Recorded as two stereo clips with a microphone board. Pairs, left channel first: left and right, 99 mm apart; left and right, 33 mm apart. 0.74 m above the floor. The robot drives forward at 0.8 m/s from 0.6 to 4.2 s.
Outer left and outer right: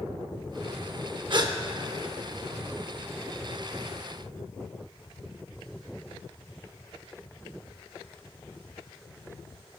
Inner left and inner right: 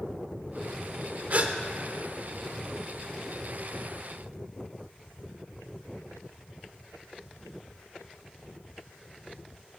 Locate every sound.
1.3 s a gasp: 50° right (ahead or behind), 0.6 m; by 1.6 s 40° right (ahead or behind), 0.8 m